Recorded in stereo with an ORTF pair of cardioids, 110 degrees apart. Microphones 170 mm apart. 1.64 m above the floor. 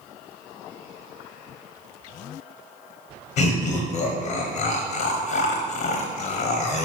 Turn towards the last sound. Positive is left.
turn(degrees=65)